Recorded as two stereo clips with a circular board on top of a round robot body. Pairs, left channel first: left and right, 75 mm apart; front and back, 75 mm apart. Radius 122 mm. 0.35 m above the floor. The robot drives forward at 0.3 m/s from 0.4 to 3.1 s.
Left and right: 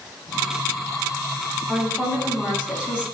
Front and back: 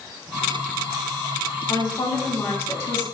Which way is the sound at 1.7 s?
20° right.